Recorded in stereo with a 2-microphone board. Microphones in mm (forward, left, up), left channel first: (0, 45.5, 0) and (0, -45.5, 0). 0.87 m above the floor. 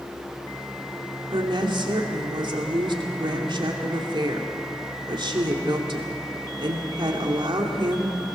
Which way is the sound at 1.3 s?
60° right (ahead or behind).